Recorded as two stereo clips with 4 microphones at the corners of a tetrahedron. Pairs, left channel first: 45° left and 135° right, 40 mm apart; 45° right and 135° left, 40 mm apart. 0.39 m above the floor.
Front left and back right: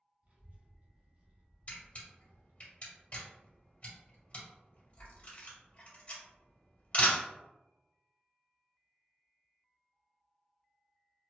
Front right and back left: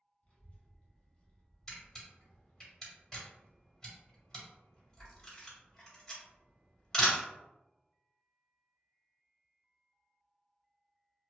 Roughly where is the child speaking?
Right.